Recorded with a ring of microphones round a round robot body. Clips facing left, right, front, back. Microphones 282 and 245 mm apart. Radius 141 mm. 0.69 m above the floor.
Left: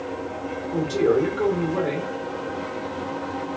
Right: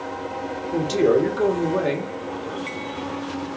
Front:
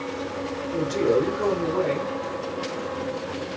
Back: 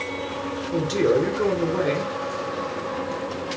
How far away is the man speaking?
About 1.8 m.